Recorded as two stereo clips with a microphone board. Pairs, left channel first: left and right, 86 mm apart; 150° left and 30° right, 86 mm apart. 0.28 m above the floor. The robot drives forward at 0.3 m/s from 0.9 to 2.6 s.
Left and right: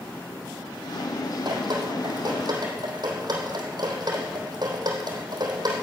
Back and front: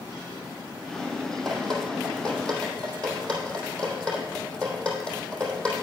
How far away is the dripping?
About 3 m.